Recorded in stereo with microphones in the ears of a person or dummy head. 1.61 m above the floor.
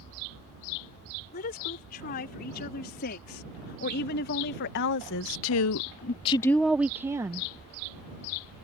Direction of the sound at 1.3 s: 45° left (ahead or behind).